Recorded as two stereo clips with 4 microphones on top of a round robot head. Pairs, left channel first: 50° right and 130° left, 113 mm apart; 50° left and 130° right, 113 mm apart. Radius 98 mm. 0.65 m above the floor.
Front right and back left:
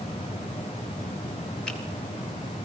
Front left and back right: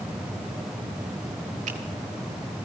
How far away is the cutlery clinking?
I don't hear cutlery clinking.